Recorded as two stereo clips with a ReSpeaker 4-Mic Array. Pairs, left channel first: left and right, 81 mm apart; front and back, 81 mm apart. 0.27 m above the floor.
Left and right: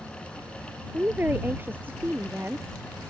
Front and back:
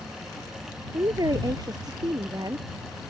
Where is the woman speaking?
155° right.